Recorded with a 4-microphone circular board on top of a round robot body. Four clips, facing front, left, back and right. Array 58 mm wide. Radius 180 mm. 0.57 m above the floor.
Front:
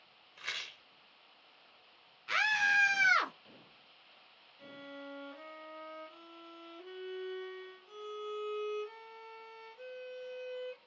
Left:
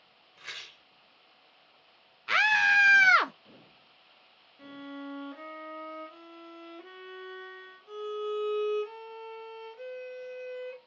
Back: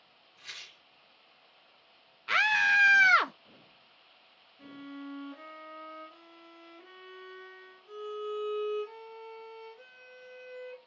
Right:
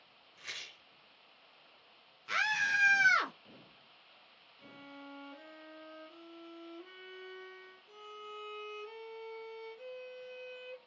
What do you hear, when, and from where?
0.4 s a rattle: 20° left, 0.9 m
2.3 s a scream: 125° left, 0.7 m
4.6 s a violin: 95° left, 0.8 m